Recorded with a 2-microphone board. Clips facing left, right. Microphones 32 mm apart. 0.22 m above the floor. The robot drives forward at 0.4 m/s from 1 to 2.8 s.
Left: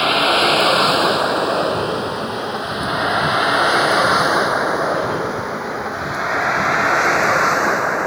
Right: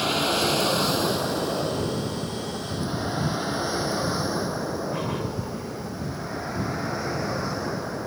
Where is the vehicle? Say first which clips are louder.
Left 9 dB; 40° left (ahead or behind); by 8.1 s 80° left.